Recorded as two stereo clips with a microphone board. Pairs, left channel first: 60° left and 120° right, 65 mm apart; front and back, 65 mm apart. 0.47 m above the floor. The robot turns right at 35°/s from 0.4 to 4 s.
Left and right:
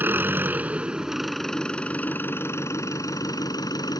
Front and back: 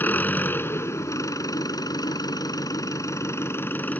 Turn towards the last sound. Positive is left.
turn(degrees=65)